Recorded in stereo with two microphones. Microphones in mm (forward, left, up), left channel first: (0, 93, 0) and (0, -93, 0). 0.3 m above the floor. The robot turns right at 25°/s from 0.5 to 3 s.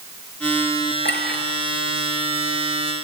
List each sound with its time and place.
1.1 s a clink: 70° left (ahead or behind), 3.5 m; by 1.4 s 60° left (ahead or behind), 3.5 m